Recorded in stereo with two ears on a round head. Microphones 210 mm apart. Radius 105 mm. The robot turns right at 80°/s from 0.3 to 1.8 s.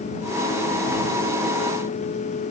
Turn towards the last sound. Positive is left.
No sound to turn to.